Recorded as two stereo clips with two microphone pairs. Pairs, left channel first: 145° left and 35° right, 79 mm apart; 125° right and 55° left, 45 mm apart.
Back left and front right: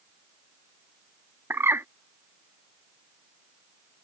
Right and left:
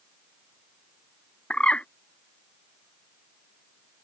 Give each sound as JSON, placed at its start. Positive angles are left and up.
{"t": 1.5, "sound": "a bird", "azimuth_deg": -75}